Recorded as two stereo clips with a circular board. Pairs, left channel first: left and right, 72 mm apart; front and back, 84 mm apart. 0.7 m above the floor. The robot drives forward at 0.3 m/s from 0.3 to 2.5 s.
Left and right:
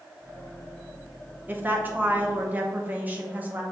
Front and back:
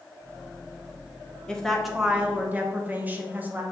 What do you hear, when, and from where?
1.5 s a woman speaking: 70° right, 0.6 m; by 3.6 s 130° right, 0.6 m